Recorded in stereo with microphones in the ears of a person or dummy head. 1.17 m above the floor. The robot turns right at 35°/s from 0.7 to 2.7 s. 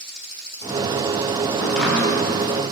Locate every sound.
1.6 s chopping: 10° left (ahead or behind), 3.5 m; by 2.1 s 10° right (ahead or behind), 3.5 m